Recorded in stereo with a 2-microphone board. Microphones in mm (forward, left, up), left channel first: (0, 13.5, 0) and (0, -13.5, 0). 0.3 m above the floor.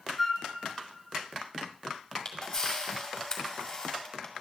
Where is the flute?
5° left (ahead or behind), 0.9 m.